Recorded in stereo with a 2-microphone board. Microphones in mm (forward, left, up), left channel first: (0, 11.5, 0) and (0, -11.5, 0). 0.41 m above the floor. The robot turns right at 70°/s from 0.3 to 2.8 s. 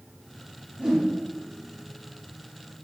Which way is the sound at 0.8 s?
30° right (ahead or behind).